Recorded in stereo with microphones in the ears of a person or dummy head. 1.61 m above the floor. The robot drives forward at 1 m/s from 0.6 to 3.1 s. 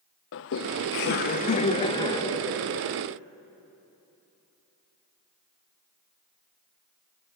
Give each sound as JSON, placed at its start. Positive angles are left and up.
{"t": 0.3, "sound": "laughter", "side_deg": 60, "distance_m": 0.9}